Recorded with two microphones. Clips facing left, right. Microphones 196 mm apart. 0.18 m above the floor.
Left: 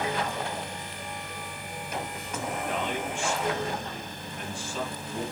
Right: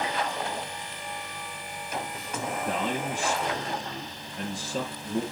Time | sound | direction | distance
2.6 | a man speaking | 40° right (ahead or behind) | 4 m